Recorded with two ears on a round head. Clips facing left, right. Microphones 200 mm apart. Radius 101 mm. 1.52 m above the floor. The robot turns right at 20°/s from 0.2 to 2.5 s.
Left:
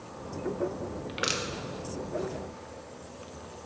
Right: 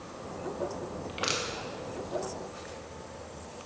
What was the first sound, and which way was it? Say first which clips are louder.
Crushing: even; 20° left (ahead or behind).